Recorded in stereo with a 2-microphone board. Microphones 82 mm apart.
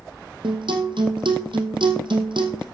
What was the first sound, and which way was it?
A guitar, 80° right.